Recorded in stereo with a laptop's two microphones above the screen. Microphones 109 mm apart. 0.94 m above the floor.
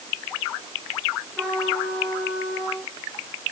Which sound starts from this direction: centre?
A trumpet, at 1.4 s.